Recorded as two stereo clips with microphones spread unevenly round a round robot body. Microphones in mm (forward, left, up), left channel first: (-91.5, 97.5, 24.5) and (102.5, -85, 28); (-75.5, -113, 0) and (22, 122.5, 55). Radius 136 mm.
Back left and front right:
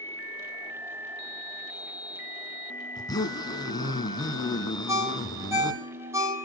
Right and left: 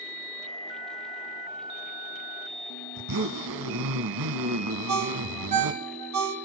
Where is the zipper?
60° left, 1.1 m.